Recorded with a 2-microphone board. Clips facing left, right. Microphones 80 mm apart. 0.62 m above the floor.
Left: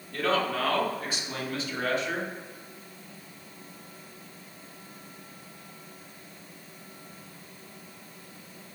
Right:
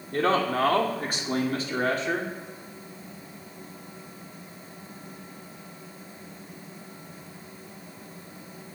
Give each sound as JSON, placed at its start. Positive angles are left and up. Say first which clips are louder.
{"t": 0.1, "sound": "a man speaking", "louder": "right 3 dB", "side_deg": -45, "distance_m": 1.8}